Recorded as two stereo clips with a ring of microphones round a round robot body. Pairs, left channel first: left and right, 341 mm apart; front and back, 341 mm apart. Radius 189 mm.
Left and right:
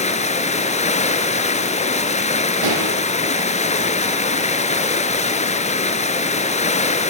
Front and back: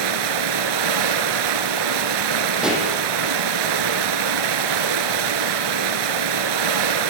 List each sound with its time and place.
0.0 s running water: 160° left, 1.9 m
2.6 s a pop: 95° right, 6.5 m